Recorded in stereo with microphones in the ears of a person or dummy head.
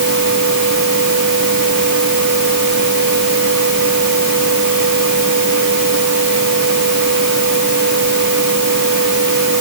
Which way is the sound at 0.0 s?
60° right (ahead or behind).